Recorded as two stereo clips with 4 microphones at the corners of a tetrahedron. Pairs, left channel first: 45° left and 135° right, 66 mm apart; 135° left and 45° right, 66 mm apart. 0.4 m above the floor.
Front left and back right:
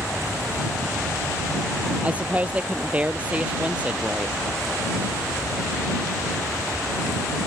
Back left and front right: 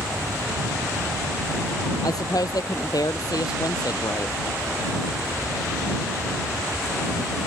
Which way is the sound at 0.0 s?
55° right.